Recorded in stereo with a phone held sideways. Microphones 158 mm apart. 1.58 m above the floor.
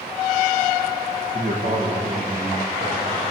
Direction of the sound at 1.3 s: 75° right (ahead or behind).